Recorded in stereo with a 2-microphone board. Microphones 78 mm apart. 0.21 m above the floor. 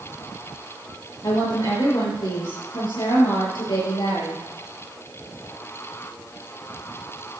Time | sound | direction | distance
1.2 | a woman speaking | 65° left (ahead or behind) | 4.5 m